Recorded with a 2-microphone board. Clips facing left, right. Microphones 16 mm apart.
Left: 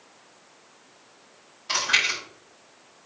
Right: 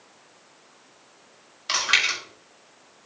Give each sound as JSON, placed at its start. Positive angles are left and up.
{"t": 1.7, "sound": "chewing", "side_deg": -35, "distance_m": 5.5}